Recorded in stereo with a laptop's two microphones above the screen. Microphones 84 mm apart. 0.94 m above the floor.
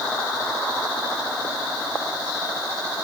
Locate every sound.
Only background noise.